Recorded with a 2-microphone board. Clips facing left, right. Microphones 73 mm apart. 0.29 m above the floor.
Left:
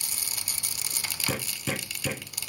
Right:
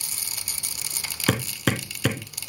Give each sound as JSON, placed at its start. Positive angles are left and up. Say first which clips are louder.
{"t": 1.3, "sound": "hammering", "louder": "right 8 dB", "side_deg": -75, "distance_m": 2.5}